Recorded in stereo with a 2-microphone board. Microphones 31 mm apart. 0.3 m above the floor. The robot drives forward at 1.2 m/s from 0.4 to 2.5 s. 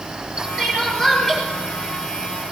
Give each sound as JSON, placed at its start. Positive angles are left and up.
{"t": 0.6, "sound": "crying", "side_deg": 20, "distance_m": 4.0}